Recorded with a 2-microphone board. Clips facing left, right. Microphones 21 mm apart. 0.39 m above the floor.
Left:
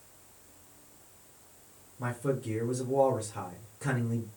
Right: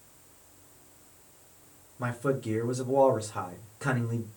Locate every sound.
2.0 s a man speaking: 25° right (ahead or behind), 1.0 m